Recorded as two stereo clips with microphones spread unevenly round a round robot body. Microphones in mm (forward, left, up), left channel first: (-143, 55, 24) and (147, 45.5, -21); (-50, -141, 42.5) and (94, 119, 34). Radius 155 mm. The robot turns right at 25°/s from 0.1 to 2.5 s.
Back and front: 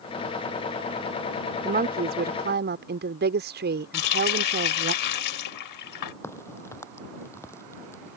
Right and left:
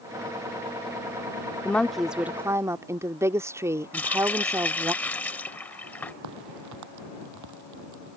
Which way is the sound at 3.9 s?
155° left.